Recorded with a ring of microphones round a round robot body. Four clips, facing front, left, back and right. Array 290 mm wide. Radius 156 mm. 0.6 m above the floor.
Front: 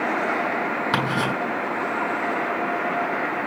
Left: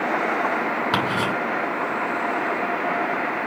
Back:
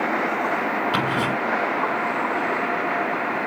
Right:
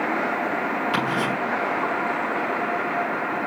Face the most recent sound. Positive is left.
turn(degrees=40)